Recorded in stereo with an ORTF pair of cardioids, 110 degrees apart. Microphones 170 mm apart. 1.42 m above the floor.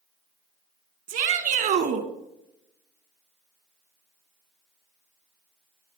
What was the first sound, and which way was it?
A shout, 60° right.